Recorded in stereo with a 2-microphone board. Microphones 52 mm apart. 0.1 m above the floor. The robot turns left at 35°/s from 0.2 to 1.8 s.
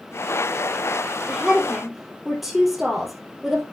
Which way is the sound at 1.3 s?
15° right (ahead or behind).